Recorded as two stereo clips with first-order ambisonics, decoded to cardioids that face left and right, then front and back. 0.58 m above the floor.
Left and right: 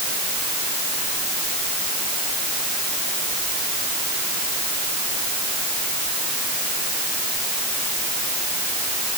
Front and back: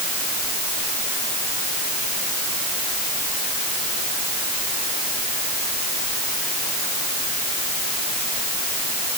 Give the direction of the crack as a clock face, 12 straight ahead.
No crack in this recording.